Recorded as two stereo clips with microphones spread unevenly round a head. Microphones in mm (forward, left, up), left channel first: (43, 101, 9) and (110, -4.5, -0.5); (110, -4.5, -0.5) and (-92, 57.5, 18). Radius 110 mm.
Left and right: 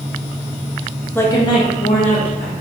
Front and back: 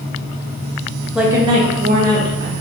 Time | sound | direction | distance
1.1 | a woman speaking | 65° left | 0.6 m